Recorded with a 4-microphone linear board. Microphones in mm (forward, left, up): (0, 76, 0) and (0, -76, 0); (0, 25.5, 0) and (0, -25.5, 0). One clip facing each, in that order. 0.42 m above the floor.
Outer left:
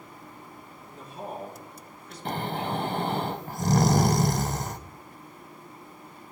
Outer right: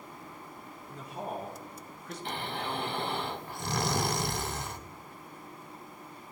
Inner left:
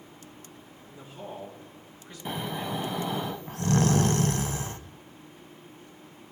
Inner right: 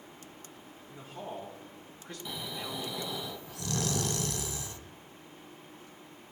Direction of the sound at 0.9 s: 75° right (ahead or behind).